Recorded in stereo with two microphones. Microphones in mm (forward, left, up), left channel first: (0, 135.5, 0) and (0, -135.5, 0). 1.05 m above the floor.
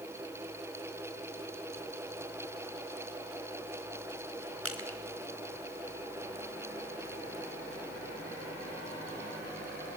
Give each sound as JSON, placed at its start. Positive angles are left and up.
{"t": 4.7, "sound": "crushing", "side_deg": -55, "distance_m": 2.0}